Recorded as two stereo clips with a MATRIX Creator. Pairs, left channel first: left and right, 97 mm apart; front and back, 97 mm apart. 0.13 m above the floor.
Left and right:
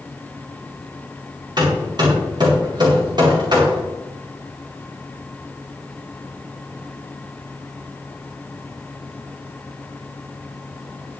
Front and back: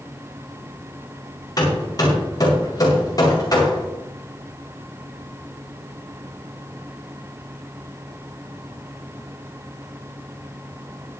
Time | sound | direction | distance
1.6 | hammering | 50° right | 6.5 m